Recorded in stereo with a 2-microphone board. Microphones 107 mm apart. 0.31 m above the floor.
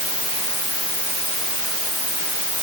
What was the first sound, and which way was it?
Only background noise.